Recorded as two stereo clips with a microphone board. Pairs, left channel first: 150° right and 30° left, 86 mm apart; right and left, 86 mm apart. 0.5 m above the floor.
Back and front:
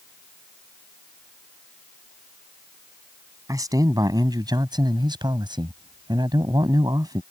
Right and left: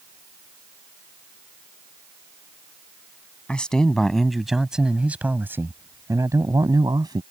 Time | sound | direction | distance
3.5 | a man speaking | 15° right | ?